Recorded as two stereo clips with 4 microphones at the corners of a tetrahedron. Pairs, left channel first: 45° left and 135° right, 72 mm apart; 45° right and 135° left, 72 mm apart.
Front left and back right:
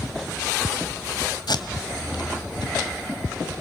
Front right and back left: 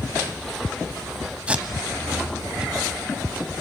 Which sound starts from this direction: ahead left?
Tape being pulled, at 1.5 s.